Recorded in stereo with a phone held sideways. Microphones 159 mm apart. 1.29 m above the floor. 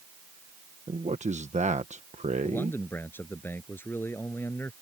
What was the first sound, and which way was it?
A man speaking, 50° right (ahead or behind).